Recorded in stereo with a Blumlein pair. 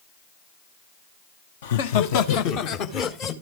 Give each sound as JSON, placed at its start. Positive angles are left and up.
{"t": 1.6, "sound": "laughter", "azimuth_deg": 60, "distance_m": 1.0}